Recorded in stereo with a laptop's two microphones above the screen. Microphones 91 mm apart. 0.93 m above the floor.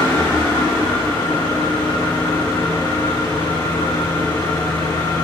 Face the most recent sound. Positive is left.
turn(degrees=65)  # may be behind; listen again after turning